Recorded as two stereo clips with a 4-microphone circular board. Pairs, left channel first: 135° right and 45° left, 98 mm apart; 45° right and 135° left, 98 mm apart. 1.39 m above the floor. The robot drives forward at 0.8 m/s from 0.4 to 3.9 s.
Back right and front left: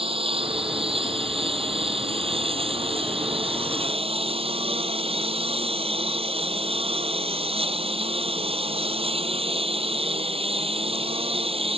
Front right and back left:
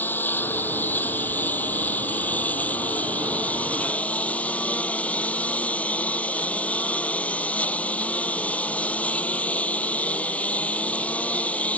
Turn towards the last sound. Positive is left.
turn(degrees=30)